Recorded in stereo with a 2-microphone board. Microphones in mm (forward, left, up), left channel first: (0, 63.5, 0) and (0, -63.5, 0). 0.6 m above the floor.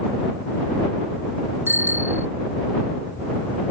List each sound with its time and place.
1.7 s a bicycle bell: 15° right (ahead or behind)